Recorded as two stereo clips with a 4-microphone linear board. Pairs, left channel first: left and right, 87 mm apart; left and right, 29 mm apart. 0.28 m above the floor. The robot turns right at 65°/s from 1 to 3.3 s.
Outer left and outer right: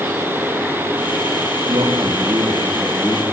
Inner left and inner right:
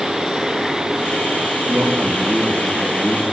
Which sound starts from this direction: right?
A man speaking, at 1.7 s.